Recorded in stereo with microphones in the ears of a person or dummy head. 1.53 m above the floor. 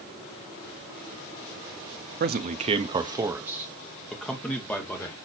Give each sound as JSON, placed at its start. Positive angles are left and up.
{"t": 2.2, "sound": "a man speaking", "side_deg": -55, "distance_m": 0.8}